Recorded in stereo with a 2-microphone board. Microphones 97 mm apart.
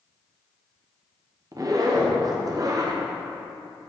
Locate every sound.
1.5 s a zipper: 40° right (ahead or behind), 0.7 m